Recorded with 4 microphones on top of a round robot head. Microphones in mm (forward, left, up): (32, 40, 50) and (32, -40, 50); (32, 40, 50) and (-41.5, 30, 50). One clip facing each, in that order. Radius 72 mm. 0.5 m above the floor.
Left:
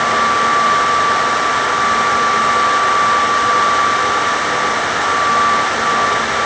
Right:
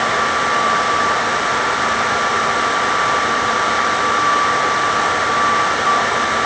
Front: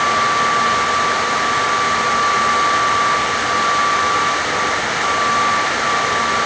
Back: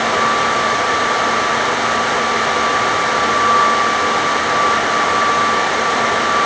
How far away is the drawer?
I don't hear a drawer.